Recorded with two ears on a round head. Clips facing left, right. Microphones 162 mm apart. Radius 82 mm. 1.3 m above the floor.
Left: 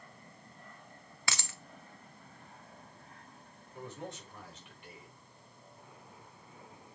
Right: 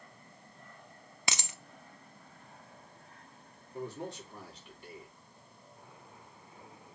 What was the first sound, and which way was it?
A dropped coin, 15° right (ahead or behind).